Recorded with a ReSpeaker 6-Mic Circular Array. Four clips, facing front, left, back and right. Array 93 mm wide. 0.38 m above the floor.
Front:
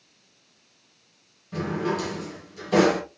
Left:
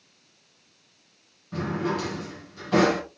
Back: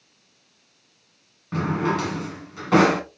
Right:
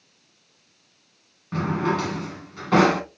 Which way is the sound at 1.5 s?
140° right.